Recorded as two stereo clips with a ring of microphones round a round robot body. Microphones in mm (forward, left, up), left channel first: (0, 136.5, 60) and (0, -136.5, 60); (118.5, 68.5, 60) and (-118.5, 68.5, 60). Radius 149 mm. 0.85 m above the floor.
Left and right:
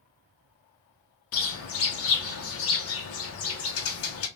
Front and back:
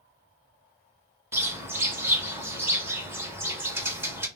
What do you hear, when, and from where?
1.3 s a bird: 100° left, 0.8 m